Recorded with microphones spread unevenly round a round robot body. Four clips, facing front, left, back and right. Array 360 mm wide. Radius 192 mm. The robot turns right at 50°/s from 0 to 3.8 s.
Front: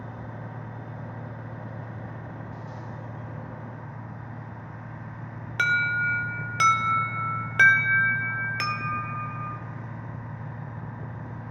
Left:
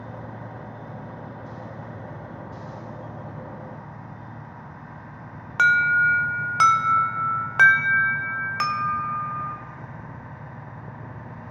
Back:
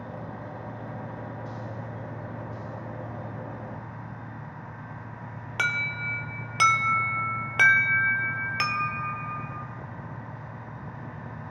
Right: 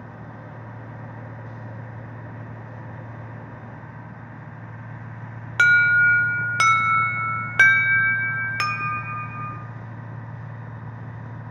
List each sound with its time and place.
5.6 s an alarm: 95° right, 1.7 m